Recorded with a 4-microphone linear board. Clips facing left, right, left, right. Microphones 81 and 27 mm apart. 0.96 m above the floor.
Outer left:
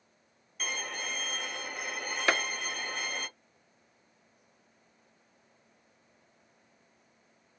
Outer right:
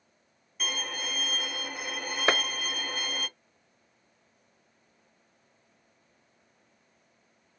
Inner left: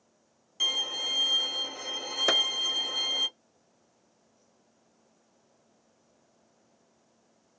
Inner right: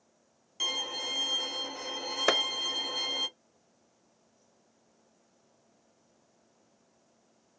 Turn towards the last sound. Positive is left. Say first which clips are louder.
# outer right 2 dB, inner left 1 dB
turn(degrees=-30)  # may be behind; listen again after turning